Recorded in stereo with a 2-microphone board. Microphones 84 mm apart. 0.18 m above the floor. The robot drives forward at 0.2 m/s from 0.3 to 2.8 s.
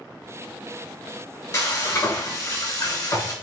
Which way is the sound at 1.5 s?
45° left (ahead or behind).